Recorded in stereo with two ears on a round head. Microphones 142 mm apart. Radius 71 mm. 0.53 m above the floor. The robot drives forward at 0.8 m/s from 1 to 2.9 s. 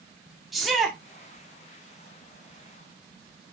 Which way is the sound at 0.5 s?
Centre (ahead or behind).